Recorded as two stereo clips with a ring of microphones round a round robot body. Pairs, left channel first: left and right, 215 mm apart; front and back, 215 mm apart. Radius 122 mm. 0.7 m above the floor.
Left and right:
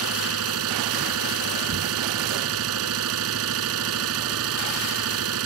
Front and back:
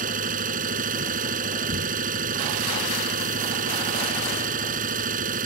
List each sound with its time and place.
0.0 s an engine running: 120° right